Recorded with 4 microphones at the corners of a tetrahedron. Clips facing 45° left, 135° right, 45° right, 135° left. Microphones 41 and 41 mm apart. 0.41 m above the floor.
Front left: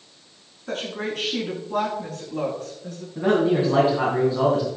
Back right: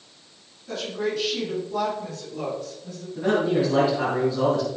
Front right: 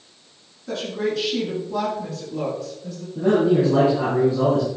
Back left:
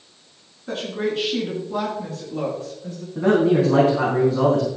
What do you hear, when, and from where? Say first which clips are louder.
0.7 s a woman speaking: back right 1 dB, even; 75° left, 6 m
3.1 s a man speaking: front left 2 dB, back left 1 dB; 110° left, 3.5 m